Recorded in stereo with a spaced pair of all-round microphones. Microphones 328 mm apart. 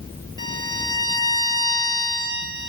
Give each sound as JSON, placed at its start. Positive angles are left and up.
{"t": 0.4, "sound": "a violin", "side_deg": -65, "distance_m": 4.5}